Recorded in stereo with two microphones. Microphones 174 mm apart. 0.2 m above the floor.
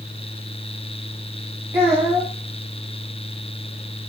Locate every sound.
1.7 s a child speaking: 20° right (ahead or behind), 1.4 m